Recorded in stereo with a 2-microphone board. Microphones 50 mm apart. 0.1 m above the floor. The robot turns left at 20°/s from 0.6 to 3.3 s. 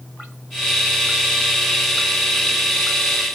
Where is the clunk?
I don't hear a clunk.